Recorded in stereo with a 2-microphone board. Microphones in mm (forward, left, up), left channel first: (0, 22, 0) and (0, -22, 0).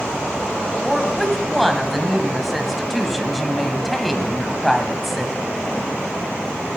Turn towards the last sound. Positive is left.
turn(degrees=0)  # may be behind; listen again after turning